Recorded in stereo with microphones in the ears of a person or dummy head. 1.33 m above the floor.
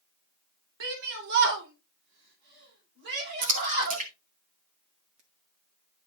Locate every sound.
0.8 s a shout: 75° right (ahead or behind), 2 m; by 4.0 s 55° right (ahead or behind), 6 m
3.4 s a splash: 40° right (ahead or behind), 1.6 m